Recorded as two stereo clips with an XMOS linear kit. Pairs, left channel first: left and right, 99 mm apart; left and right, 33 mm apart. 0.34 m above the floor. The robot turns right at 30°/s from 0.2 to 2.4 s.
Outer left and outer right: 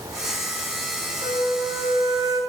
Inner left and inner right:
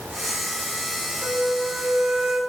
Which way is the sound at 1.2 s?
75° right.